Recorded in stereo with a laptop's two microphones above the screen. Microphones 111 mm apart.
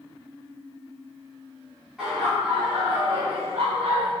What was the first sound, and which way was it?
Laughter, 5° right (ahead or behind).